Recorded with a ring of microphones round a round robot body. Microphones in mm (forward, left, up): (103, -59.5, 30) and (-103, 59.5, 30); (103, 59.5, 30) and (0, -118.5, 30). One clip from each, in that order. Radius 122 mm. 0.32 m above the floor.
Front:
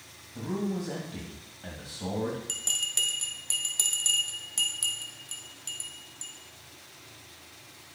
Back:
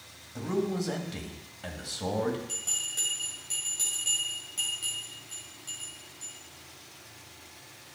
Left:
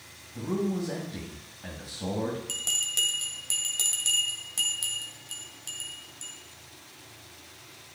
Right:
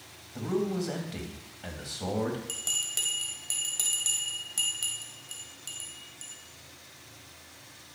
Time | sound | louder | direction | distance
0.3 | a man speaking | back 3 dB, right 1 dB | 160° right | 2 m
2.5 | a bell | front 3 dB, left 3 dB | 20° right | 2 m